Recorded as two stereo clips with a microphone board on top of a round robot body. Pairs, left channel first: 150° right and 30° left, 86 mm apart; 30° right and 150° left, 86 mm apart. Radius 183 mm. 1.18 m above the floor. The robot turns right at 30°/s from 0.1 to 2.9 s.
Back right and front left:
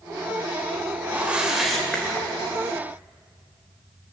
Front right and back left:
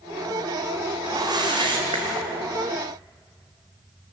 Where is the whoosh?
100° left, 1.8 m; by 2.5 s 145° left, 1.8 m.